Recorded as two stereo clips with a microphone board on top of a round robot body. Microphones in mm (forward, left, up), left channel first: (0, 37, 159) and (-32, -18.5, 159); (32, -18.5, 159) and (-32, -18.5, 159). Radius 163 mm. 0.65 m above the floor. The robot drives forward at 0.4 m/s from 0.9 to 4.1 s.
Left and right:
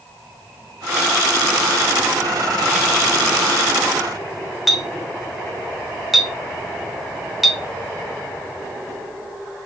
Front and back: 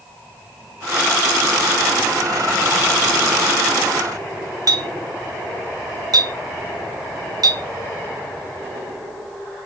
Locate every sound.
4.7 s a clink: 150° left, 1.3 m